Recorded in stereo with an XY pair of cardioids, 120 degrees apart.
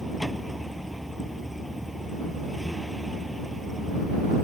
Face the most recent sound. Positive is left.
turn(degrees=-5)